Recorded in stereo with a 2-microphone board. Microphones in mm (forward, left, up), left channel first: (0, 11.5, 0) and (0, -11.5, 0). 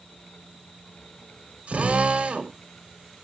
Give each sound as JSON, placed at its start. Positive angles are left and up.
{"t": 1.7, "sound": "a drill", "side_deg": -60, "distance_m": 3.5}